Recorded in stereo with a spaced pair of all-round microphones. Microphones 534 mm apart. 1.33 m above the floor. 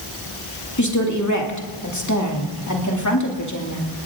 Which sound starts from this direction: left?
A woman speaking, at 0.8 s.